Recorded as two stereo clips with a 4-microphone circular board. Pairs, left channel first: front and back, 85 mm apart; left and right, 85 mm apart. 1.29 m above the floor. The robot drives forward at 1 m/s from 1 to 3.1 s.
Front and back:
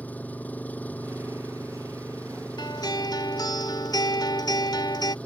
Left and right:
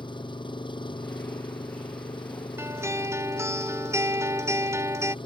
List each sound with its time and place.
0.0 s an engine running: 70° left; by 5.2 s 75° left
2.6 s a guitar: 30° right; by 5.2 s 35° right